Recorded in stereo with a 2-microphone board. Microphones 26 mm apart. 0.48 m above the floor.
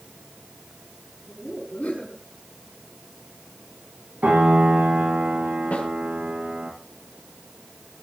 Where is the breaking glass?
No breaking glass in this recording.